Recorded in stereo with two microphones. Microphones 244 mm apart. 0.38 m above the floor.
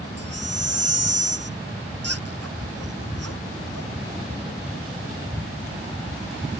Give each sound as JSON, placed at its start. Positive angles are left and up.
{"t": 0.2, "sound": "a baby crying", "side_deg": -75}